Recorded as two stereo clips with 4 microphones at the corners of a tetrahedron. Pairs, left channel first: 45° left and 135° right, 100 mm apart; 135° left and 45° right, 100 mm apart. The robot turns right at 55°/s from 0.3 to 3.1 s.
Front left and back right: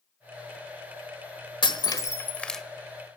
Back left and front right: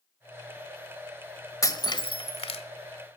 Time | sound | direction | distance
1.6 | breaking glass | 80° left | 1.4 m